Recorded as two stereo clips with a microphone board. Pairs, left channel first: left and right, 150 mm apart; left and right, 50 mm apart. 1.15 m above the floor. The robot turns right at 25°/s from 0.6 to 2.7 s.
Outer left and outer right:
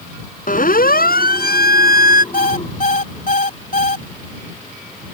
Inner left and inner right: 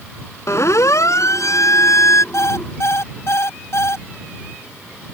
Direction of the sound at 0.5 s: 65° left (ahead or behind).